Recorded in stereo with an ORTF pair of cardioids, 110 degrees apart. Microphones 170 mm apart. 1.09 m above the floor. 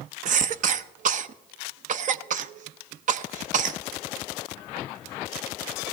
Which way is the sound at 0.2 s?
50° right.